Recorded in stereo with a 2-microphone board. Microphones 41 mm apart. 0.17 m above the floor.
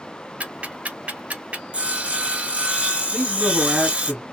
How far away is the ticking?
About 0.9 m.